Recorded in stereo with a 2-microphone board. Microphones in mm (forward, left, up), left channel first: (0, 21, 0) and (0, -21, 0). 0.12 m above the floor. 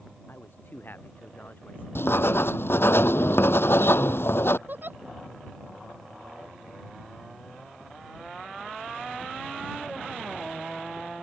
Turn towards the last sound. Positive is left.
turn(degrees=-50)  # may be behind; listen again after turning